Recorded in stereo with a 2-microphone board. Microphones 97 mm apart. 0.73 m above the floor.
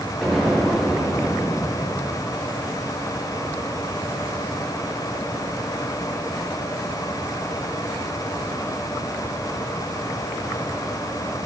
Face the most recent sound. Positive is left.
turn(degrees=-5)  # may be behind; listen again after turning